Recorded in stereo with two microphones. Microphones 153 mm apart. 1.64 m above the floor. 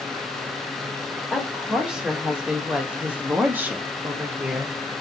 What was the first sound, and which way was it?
A woman speaking, 5° right (ahead or behind).